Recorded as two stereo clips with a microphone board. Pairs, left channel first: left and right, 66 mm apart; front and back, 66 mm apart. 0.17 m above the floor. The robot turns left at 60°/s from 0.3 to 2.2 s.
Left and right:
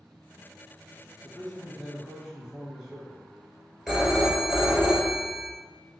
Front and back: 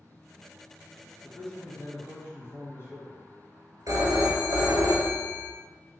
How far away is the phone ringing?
About 1.3 m.